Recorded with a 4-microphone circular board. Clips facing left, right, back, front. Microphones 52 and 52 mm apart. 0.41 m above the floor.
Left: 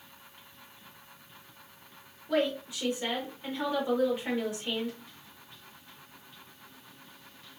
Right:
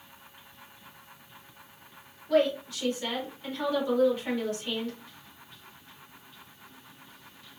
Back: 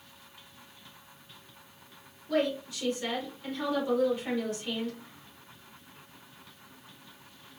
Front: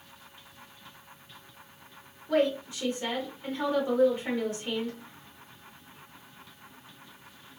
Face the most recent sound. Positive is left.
turn(degrees=35)